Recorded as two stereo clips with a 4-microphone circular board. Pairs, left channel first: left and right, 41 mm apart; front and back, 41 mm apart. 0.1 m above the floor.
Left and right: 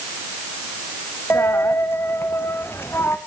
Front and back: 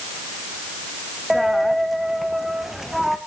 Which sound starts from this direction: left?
A dropped coin, at 1.3 s.